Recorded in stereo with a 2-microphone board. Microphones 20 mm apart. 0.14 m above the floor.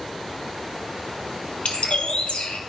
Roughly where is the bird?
Left.